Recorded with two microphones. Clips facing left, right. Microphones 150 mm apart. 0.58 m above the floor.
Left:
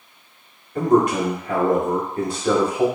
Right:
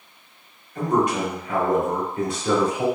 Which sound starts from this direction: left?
A man speaking, at 0.8 s.